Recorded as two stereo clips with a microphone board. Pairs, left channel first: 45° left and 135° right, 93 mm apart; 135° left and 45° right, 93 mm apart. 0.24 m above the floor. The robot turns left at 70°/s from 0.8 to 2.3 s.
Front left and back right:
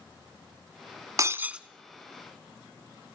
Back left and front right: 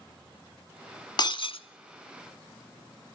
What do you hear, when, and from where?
1.2 s breaking glass: 175° left, 0.5 m; by 1.6 s 140° left, 0.5 m